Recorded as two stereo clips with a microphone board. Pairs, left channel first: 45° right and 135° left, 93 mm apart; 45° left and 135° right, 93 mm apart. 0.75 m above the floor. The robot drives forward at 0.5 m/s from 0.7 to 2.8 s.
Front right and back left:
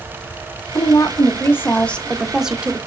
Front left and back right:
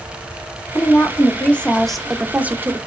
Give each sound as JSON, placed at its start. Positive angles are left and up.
{"t": 0.8, "sound": "a woman speaking", "azimuth_deg": -5, "distance_m": 0.9}